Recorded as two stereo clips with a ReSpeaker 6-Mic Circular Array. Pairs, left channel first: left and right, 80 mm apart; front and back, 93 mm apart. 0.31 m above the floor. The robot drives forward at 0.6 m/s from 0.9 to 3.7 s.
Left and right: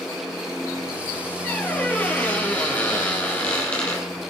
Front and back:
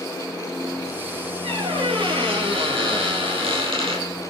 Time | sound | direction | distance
1.4 | a squeak | 160° left | 3.5 m